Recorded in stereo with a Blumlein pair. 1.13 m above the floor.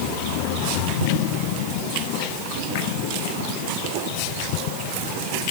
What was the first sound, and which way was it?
Only background noise.